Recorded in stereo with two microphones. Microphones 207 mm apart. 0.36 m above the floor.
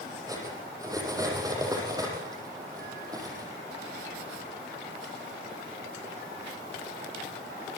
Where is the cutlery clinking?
15° right (ahead or behind), 7 m.